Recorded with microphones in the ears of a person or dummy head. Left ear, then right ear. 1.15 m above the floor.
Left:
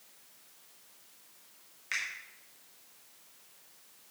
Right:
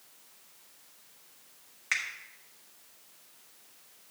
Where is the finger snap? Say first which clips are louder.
Right 4 dB; 35° right (ahead or behind), 1.4 m.